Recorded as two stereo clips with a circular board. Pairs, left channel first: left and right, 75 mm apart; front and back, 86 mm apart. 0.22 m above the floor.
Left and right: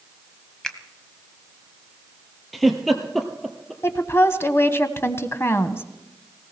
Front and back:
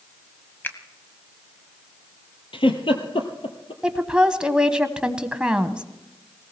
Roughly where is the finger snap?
Ahead.